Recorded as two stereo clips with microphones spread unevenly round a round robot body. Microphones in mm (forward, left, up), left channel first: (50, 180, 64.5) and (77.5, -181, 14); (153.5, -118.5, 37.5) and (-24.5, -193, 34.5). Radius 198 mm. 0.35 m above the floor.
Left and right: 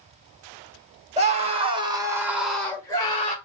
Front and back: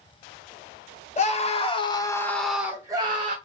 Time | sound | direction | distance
1.2 | a scream | 25° right | 1.7 m